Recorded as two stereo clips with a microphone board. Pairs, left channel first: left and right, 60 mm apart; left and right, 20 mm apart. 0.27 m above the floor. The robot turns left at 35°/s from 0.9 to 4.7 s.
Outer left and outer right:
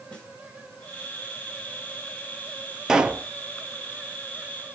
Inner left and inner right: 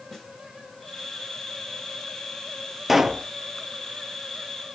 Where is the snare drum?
15° left (ahead or behind), 4 m.